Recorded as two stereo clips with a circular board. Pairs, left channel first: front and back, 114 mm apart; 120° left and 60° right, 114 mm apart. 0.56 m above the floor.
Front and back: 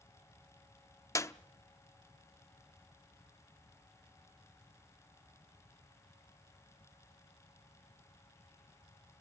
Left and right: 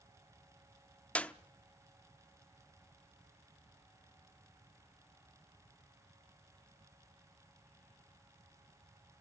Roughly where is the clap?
Ahead left.